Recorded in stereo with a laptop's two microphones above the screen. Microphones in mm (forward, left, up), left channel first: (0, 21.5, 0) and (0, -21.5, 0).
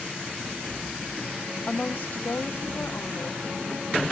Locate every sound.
1.7 s a woman speaking: 20° left (ahead or behind), 0.6 m; by 4.0 s 70° left (ahead or behind), 2 m